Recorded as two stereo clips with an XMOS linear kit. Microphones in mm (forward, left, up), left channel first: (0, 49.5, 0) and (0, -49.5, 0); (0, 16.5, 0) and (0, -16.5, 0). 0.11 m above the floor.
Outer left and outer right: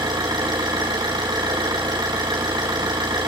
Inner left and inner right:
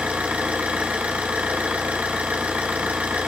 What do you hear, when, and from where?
0.0 s an engine running: 45° right (ahead or behind), 4.5 m